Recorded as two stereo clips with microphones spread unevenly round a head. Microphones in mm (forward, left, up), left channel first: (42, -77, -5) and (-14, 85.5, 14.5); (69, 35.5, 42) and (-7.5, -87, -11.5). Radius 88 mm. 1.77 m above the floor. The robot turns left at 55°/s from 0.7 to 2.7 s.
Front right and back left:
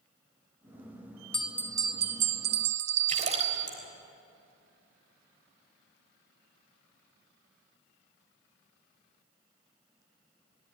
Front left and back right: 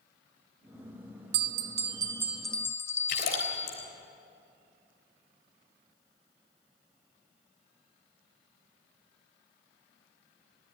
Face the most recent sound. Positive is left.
turn(degrees=65)